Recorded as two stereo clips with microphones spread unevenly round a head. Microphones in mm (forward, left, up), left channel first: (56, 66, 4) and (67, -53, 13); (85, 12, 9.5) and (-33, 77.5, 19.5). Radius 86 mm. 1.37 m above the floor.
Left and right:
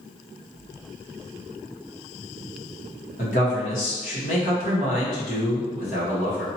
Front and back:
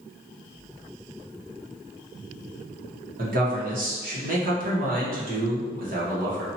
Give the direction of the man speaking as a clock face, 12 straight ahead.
8 o'clock.